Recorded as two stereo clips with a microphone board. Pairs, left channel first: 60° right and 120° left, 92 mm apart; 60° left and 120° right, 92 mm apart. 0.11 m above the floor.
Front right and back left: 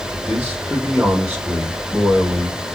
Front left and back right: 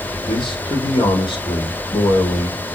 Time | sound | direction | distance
0.3 | a man speaking | 40° left | 4 m